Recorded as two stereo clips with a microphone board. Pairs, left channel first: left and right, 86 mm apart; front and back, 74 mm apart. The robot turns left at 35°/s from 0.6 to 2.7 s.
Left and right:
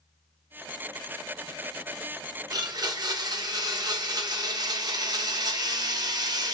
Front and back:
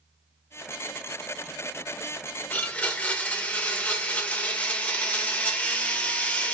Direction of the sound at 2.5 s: 60° right.